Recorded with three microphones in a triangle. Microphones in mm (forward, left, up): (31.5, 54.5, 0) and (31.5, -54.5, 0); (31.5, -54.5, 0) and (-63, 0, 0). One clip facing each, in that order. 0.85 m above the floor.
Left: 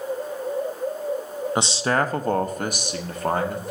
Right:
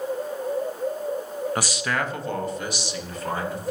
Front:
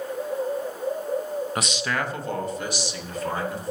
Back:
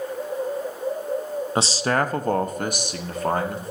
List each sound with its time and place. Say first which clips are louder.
1.6 s a man speaking: left 8 dB, back 5 dB; 130° left, 0.5 m; by 3.7 s 120° left, 1.7 m